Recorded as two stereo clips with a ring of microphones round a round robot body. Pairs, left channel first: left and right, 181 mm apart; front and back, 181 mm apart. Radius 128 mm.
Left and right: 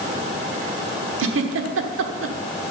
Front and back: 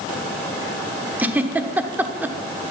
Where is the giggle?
100° right, 1.2 m.